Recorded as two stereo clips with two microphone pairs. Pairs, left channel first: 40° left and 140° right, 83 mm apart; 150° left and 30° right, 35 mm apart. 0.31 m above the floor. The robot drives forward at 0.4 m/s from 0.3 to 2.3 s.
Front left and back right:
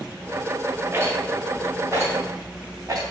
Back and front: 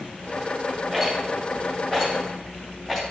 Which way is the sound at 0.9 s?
125° right.